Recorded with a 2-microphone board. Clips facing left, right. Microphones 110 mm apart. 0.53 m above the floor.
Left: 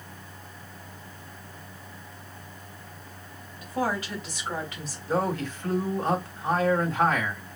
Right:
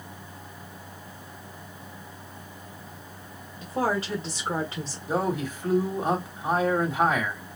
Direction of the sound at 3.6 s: 30° right (ahead or behind).